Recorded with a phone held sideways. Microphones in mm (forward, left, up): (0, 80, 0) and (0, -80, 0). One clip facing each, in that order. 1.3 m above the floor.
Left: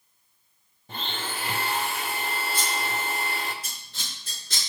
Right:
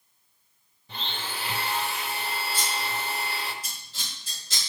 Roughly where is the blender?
Left.